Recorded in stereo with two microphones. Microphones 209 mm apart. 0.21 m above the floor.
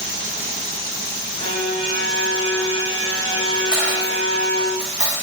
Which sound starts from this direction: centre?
A dropped coin, at 3.7 s.